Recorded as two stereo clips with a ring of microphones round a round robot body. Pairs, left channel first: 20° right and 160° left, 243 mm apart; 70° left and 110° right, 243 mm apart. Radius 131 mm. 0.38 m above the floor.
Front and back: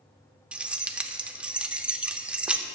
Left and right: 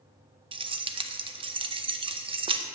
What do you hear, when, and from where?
0.5 s keys jangling: 125° right, 0.5 m